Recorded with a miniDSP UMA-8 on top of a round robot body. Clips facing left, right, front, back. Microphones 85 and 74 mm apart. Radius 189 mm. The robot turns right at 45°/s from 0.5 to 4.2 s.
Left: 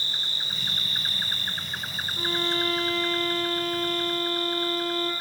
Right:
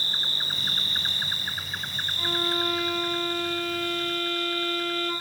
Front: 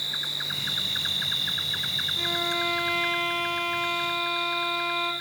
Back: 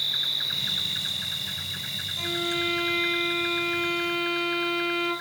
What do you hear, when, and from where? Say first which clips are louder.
0.0 s an insect: right 2 dB, back 1 dB; 55° right, 1.3 m; by 5.2 s 110° left, 1.3 m
2.2 s a violin: even, even; 45° left, 8 m; by 5.1 s 140° left, 8 m